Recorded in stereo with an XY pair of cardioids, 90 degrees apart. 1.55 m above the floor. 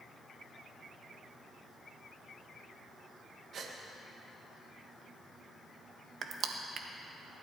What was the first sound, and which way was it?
A gasp, 60° right.